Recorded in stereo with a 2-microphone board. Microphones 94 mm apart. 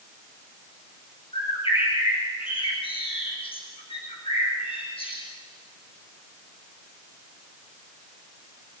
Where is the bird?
80° left, 5.5 m.